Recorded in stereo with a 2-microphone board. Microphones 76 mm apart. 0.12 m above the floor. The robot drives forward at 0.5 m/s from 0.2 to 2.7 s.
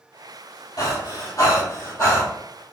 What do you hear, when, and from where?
0.8 s breathing: 60° left (ahead or behind), 1.5 m; by 2.3 s 40° left (ahead or behind), 1.9 m